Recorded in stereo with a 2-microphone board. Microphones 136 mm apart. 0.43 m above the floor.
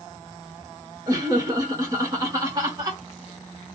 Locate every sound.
1.1 s laughter: 25° right (ahead or behind), 0.9 m